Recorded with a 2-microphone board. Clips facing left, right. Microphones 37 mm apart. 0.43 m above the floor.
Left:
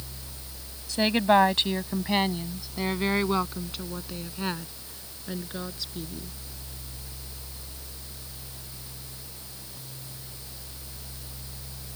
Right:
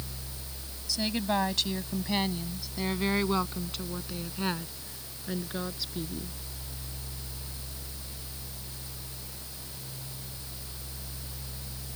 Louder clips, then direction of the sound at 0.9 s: Left 8 dB; 45° left (ahead or behind).